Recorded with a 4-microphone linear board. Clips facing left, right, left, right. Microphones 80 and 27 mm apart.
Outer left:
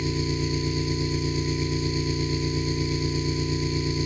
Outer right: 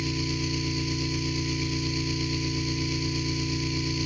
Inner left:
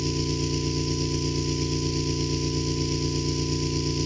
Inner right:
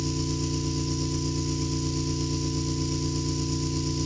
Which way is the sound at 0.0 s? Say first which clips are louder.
Outer left 3 dB, inner left 2 dB; 30° left (ahead or behind).